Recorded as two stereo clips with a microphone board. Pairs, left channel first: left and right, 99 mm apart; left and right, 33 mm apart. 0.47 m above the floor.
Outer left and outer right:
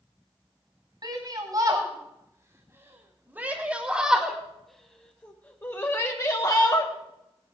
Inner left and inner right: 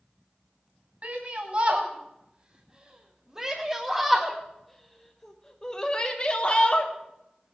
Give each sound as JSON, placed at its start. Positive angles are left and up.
{"t": 1.0, "sound": "a shout", "side_deg": -45, "distance_m": 3.0}